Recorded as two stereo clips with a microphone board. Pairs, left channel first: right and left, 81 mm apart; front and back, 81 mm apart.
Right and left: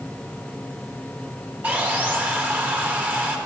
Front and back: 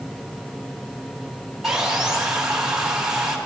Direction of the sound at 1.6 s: 110° left.